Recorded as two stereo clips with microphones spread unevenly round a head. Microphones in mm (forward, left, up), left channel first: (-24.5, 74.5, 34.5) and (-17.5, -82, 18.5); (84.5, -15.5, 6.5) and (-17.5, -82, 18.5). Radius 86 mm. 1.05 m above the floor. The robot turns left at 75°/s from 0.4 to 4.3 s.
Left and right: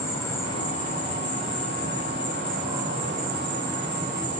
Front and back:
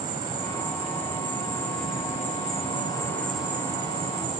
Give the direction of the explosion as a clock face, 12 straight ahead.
No explosion in this recording.